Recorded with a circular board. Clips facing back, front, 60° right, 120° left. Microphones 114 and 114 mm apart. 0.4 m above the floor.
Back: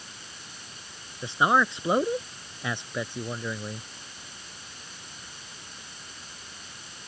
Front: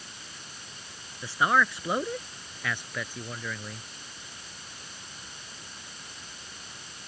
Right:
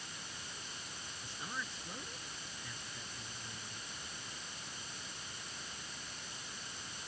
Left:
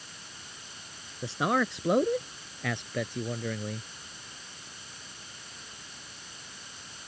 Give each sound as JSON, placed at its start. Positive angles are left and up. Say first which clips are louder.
{"t": 1.2, "sound": "a man speaking", "louder": "back 2 dB, left 19 dB", "azimuth_deg": 110}